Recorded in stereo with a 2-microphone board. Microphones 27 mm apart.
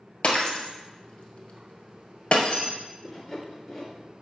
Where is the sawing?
15° left (ahead or behind), 2 m.